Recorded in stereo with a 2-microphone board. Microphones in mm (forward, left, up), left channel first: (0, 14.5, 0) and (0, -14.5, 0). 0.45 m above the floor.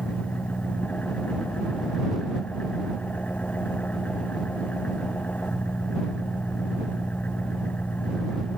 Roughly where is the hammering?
I don't hear hammering.